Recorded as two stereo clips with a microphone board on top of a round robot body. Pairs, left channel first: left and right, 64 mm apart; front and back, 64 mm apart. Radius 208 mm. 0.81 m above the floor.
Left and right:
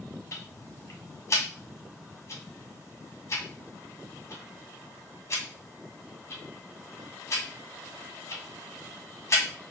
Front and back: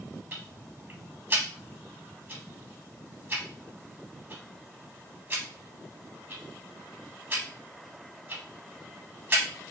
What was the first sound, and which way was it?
Ticking, 130° left.